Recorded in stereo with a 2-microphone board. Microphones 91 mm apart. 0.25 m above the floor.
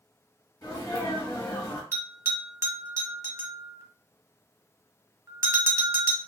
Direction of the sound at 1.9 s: 35° right (ahead or behind).